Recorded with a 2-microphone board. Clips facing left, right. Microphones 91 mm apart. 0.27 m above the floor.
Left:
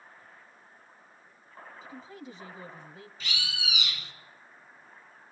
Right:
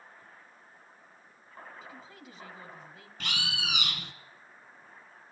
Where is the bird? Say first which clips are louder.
Right 3 dB; 60° right (ahead or behind), 1.0 m.